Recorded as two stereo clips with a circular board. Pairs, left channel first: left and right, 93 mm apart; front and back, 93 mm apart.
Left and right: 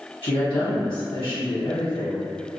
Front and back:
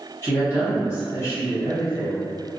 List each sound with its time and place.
0.2 s a woman speaking: 70° left, 1.1 m